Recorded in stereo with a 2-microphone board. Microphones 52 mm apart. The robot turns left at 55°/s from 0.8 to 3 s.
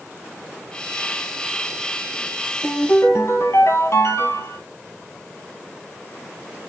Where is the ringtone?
40° left (ahead or behind), 2.5 m; by 4.6 s 60° left (ahead or behind), 2.5 m.